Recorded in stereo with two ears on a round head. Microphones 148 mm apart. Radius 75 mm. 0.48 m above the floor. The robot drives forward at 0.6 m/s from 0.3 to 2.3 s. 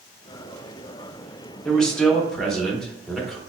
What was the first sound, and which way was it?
A man speaking, 5° left (ahead or behind).